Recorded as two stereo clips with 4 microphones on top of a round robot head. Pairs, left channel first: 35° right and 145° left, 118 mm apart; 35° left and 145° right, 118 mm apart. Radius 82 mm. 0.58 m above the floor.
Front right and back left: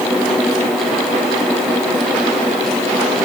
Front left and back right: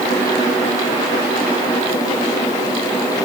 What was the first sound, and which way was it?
Only background noise.